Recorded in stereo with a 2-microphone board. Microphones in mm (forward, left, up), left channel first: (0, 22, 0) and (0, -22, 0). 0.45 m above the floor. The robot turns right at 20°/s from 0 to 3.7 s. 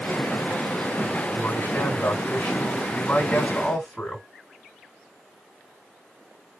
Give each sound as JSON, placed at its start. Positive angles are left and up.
{"t": 1.4, "sound": "a man speaking", "azimuth_deg": 120, "distance_m": 3.5}